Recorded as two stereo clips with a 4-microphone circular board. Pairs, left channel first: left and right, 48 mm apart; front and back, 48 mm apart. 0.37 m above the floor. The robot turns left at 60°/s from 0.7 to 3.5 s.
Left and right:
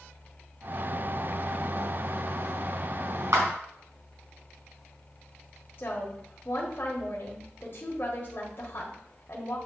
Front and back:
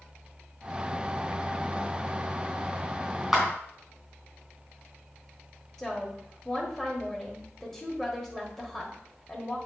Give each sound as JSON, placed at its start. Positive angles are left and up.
{"t": 3.3, "sound": "a clap", "azimuth_deg": -95, "distance_m": 3.5}
{"t": 5.8, "sound": "a woman speaking", "azimuth_deg": 80, "distance_m": 1.4}